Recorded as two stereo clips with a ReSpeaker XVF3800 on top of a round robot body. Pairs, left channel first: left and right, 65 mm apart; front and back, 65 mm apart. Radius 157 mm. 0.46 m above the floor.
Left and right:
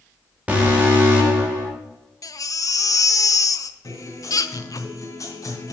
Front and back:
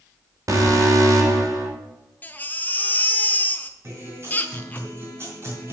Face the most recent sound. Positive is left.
turn(degrees=130)